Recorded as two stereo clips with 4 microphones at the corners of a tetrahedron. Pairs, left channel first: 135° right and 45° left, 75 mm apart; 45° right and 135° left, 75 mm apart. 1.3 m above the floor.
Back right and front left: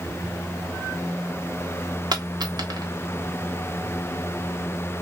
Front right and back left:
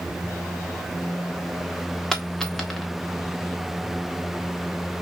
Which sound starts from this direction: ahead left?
A dropped coin, at 2.1 s.